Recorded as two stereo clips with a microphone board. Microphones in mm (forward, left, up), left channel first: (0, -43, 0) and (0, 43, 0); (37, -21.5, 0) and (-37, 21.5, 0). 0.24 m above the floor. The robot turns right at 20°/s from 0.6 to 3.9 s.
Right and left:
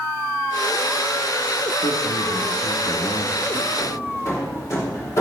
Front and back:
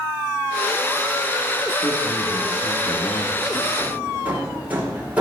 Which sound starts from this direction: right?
A man speaking, at 1.8 s.